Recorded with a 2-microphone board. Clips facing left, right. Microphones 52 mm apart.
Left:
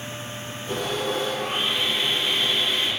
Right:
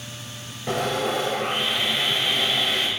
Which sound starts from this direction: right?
Sawing, at 0.7 s.